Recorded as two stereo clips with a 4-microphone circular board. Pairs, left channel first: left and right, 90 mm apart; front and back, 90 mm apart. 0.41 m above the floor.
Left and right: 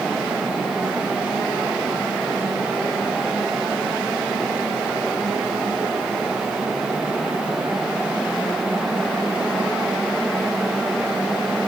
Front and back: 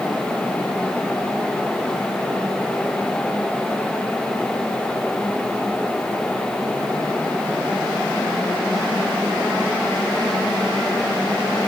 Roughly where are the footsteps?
No footsteps in this recording.